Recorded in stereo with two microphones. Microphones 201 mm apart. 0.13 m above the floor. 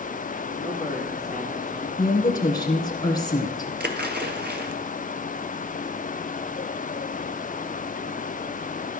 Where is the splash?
55° right (ahead or behind), 0.9 m.